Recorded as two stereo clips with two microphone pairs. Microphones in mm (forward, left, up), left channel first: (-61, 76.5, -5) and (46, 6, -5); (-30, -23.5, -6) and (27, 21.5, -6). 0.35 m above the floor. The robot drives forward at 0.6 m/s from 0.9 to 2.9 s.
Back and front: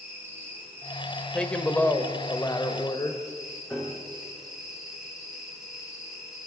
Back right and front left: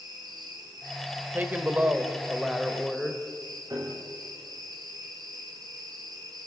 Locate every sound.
0.0 s an insect: 40° left, 5.5 m; by 6.5 s 50° left, 5 m
1.3 s a woman speaking: 70° left, 1.6 m; by 3.2 s 125° left, 1.7 m
3.7 s a piano: 75° left, 6.5 m